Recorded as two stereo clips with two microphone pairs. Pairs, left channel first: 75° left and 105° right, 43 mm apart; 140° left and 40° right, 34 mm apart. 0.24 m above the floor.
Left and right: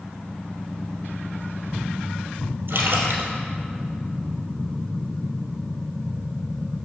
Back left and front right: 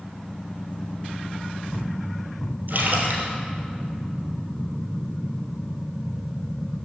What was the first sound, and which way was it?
A splash, 75° right.